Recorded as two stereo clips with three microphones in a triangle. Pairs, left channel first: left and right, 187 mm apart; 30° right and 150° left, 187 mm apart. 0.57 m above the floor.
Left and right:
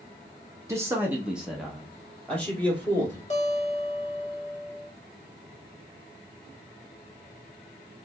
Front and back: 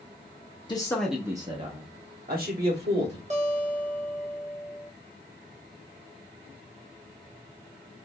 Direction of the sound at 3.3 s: 120° left.